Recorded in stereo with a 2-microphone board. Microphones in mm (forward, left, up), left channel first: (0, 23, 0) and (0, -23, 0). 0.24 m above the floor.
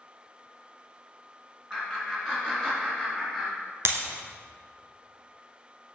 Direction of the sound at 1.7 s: 20° right (ahead or behind).